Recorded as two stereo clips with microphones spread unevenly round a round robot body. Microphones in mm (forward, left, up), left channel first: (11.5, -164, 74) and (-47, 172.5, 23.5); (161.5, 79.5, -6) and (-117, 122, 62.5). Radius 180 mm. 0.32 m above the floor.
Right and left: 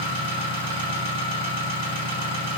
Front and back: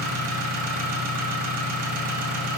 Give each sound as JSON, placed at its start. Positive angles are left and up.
{"t": 0.0, "sound": "an engine running", "azimuth_deg": 130, "distance_m": 3.0}